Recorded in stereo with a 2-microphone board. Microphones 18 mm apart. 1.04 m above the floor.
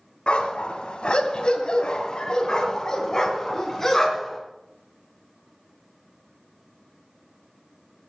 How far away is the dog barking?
About 2 m.